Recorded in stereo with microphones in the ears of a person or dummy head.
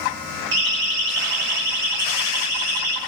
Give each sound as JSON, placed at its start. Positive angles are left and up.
{"t": 0.5, "sound": "a siren", "side_deg": -60, "distance_m": 6.5}